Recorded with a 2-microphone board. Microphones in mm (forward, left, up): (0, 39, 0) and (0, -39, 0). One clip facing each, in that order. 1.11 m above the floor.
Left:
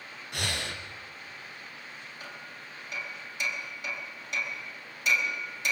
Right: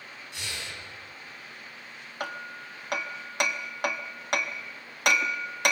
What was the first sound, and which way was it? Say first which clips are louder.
Breathing: left 5 dB; 60° left (ahead or behind).